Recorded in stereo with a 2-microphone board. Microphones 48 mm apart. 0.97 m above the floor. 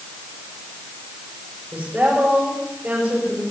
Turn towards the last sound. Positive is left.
turn(degrees=-35)  # may be behind; listen again after turning